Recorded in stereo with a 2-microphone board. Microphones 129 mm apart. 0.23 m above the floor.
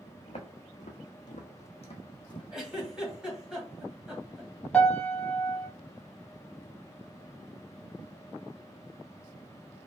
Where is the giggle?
5° right (ahead or behind), 0.9 m.